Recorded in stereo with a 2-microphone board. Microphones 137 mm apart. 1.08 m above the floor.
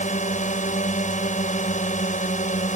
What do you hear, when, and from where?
0.0 s a drone: 60° left (ahead or behind)